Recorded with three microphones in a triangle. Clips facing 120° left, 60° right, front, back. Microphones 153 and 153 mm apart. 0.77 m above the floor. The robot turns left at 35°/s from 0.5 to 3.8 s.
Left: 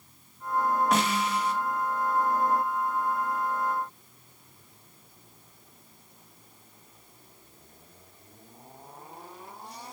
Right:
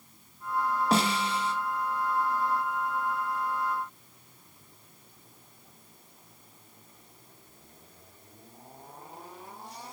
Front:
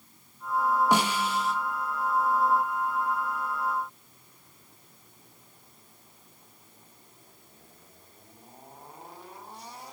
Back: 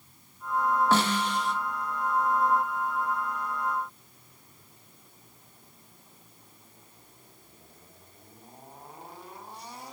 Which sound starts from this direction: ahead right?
A snare drum, at 0.9 s.